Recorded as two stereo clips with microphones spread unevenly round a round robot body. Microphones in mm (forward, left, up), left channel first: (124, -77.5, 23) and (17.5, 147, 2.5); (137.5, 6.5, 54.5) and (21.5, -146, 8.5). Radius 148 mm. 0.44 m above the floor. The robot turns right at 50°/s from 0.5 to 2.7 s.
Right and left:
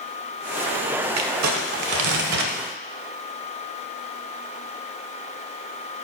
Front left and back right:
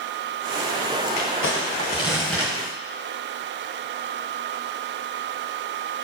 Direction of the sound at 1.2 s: 90° left.